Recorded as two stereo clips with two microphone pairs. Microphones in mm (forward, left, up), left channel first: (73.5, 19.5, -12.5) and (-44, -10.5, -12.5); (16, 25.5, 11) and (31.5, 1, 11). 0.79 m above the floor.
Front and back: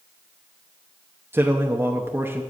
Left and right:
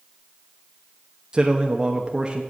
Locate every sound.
1.3 s a man speaking: 100° right, 0.8 m